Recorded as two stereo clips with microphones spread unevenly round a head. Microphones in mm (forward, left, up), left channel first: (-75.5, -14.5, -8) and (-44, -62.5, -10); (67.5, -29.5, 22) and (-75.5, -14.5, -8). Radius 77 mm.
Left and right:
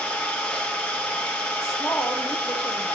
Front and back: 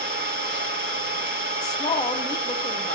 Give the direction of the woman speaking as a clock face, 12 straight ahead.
10 o'clock.